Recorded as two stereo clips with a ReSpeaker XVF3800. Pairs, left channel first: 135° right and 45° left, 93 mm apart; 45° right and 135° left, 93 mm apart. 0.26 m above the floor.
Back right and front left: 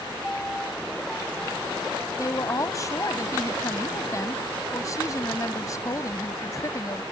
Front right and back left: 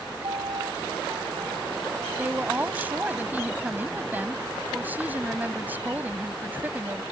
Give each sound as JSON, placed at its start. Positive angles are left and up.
{"t": 0.2, "sound": "a piano", "azimuth_deg": 145}
{"t": 2.2, "sound": "a woman speaking", "azimuth_deg": -165}